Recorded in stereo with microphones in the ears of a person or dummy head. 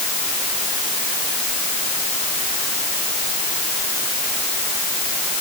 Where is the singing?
No singing in this recording.